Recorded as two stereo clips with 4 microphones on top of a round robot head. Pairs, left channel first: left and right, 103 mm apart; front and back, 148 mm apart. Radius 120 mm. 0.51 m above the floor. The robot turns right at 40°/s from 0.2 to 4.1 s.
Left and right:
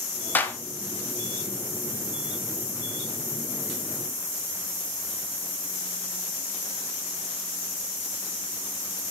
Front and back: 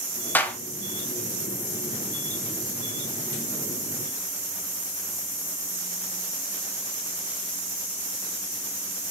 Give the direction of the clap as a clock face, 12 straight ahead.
10 o'clock.